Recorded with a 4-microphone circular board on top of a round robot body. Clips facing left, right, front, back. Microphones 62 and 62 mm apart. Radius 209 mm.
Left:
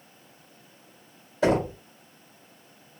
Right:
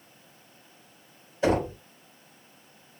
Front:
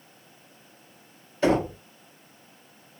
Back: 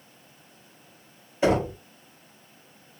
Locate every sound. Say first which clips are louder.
1.4 s knocking: left 2 dB, even; 105° left, 1.9 m